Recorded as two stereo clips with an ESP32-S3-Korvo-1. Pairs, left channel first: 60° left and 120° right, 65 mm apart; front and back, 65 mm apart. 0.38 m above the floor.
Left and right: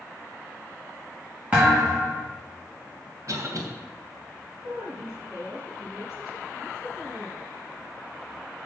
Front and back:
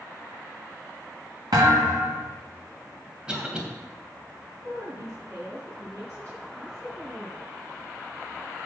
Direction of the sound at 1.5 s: 175° left.